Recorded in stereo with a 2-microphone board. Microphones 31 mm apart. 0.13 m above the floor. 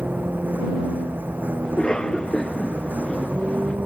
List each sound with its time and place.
0.0 s a vehicle: 75° right (ahead or behind)
1.6 s a cough: 25° left (ahead or behind)